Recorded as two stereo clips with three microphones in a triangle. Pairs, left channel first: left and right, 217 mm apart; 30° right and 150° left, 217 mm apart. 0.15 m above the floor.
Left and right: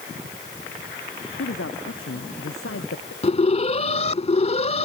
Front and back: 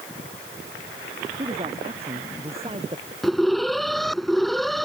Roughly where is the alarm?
Ahead left.